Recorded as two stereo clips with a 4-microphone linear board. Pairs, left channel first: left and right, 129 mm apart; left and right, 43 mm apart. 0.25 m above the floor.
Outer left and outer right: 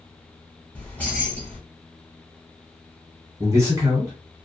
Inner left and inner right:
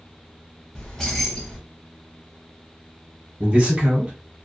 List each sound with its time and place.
0.8 s keys jangling: 10° left (ahead or behind), 1.2 m
3.4 s a man speaking: 20° right (ahead or behind), 1.3 m